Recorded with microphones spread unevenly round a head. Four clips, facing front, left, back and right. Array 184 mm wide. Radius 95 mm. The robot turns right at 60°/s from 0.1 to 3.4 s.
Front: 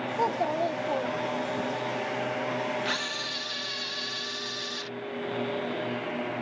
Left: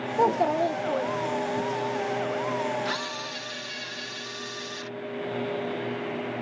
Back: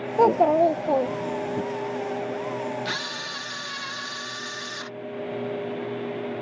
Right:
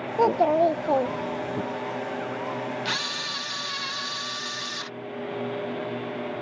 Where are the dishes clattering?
I don't hear dishes clattering.